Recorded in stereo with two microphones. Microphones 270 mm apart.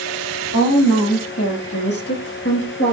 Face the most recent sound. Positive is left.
turn(degrees=40)  # may be behind; listen again after turning